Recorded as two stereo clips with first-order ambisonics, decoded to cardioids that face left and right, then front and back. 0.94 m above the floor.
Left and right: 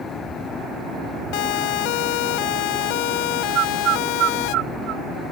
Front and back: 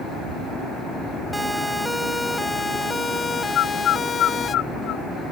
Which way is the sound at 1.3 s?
95° left.